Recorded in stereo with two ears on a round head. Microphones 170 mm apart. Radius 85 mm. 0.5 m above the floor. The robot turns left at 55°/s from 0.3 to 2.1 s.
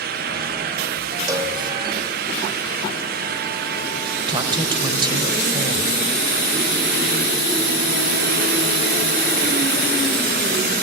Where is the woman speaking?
25° right (ahead or behind), 2.5 m.